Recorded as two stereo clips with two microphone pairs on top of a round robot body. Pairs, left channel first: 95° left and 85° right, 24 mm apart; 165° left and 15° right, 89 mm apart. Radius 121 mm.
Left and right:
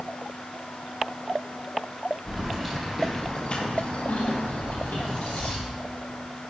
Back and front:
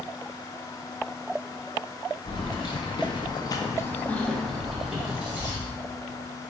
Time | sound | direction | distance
2.3 | keys jangling | 170° right | 1.0 m